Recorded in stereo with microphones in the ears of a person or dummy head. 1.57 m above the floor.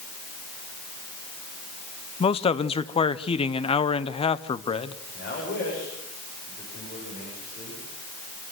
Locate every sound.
2.2 s a man speaking: 25° left (ahead or behind), 0.8 m
5.1 s a man speaking: 45° left (ahead or behind), 8 m